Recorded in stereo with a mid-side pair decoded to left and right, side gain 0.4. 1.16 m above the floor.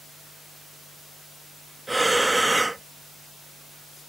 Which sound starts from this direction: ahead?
Breathing, at 1.9 s.